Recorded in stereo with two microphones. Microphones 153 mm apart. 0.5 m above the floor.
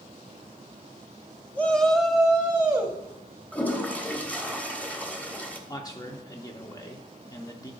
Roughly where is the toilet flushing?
Centre.